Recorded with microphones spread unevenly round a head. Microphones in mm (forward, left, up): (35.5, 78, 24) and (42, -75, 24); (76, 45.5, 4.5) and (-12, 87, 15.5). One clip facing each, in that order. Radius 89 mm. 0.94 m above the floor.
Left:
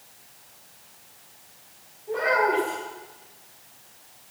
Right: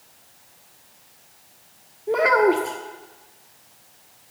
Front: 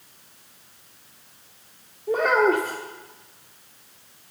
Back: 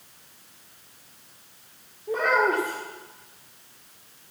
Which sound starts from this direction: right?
A child speaking, at 2.1 s.